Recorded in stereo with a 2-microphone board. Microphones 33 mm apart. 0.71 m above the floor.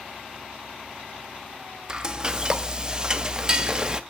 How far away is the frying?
About 0.5 m.